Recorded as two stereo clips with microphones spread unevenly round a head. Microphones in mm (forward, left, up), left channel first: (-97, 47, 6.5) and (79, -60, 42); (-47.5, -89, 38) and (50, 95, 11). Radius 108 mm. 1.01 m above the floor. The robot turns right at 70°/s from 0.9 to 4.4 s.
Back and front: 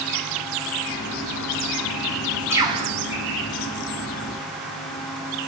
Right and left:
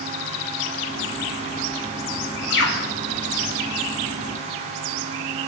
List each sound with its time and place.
2.5 s a bird: 105° right, 0.7 m; by 2.9 s 75° right, 0.7 m